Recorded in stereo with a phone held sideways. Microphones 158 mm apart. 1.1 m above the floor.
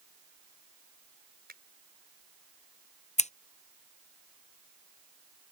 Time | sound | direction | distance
1.5 | a finger snap | 80° right | ?
3.2 | scissors | 45° left (ahead or behind) | ?